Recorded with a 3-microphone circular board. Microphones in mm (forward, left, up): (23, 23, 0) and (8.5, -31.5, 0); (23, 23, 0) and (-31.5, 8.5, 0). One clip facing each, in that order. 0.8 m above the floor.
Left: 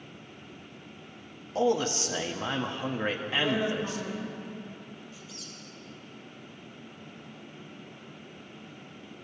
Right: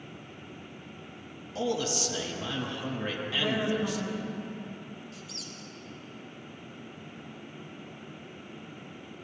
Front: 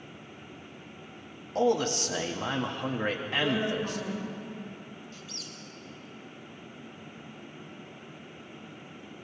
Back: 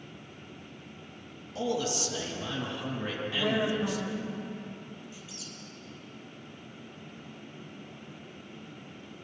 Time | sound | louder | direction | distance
1.6 | a man speaking | left 4 dB, front 5 dB | 35° left | 1.3 m
3.3 | a woman speaking | even, back 1 dB | 170° right | 3.5 m
5.1 | a squeak | right 2 dB, front 1 dB | 90° right | 2 m